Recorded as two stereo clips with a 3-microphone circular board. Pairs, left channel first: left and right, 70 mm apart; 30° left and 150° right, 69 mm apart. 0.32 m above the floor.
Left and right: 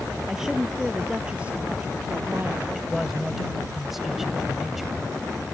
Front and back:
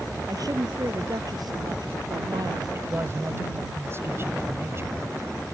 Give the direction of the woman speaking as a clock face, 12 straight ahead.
6 o'clock.